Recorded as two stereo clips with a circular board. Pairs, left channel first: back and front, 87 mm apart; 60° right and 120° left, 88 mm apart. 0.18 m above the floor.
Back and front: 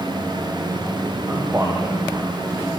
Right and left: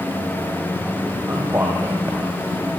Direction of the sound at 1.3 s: 60° left.